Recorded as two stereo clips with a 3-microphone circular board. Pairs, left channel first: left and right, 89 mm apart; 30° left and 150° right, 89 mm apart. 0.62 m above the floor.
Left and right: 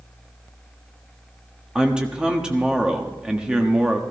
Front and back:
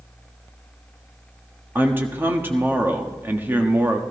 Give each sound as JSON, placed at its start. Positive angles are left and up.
{"t": 1.8, "sound": "a man speaking", "azimuth_deg": -160, "distance_m": 1.3}